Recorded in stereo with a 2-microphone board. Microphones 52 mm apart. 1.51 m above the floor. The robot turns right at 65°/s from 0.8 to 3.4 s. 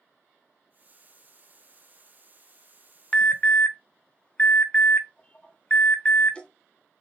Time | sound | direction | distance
3.1 | an alarm | 15° left (ahead or behind) | 0.6 m